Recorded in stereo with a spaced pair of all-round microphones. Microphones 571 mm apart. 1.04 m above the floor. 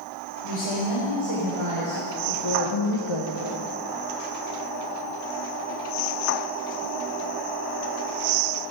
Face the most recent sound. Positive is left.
turn(degrees=55)  # may be behind; listen again after turning